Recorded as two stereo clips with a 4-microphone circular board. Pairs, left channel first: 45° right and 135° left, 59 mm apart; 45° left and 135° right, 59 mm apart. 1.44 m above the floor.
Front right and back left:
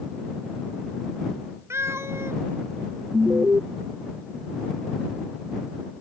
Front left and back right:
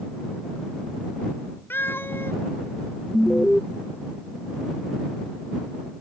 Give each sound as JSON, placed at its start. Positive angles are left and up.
{"t": 1.7, "sound": "a cat meowing", "azimuth_deg": 95}
{"t": 3.1, "sound": "an alarm", "azimuth_deg": 130}